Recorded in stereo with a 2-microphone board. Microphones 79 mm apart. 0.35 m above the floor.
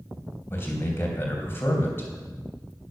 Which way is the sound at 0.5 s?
30° left (ahead or behind).